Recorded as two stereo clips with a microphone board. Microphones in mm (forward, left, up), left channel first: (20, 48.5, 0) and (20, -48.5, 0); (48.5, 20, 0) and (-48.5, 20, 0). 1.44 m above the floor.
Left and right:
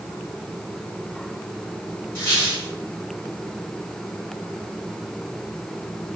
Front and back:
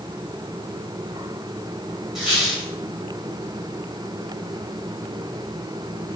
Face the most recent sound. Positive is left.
turn(degrees=100)